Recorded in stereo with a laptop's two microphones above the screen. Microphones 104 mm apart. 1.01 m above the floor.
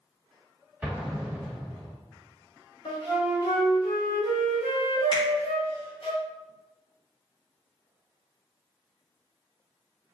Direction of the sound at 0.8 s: 10° right (ahead or behind).